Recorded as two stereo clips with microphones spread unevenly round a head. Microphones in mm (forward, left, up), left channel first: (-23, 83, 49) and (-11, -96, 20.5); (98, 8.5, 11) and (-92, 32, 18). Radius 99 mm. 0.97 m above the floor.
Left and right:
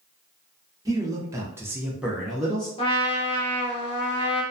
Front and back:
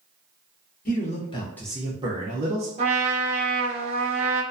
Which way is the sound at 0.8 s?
30° right.